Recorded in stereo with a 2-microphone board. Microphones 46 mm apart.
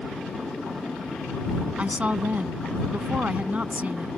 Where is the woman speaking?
30° right (ahead or behind).